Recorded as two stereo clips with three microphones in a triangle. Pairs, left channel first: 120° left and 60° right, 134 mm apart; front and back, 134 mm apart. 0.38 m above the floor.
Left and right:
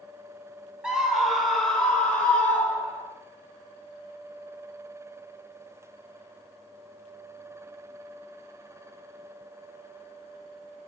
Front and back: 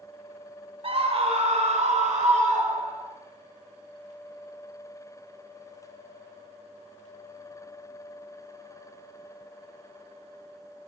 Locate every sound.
0.8 s a scream: 145° right, 2 m; by 3.1 s 165° right, 4.5 m